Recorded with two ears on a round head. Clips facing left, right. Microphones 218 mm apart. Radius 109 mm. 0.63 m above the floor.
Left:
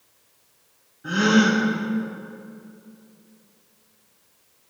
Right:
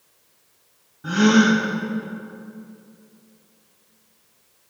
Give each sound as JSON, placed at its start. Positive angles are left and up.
{"t": 1.0, "sound": "a gasp", "side_deg": -75, "distance_m": 4.5}